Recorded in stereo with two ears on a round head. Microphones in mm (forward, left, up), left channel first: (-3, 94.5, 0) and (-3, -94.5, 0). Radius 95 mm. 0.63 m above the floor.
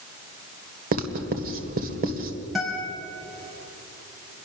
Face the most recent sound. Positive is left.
turn(degrees=0)  # may be behind; listen again after turning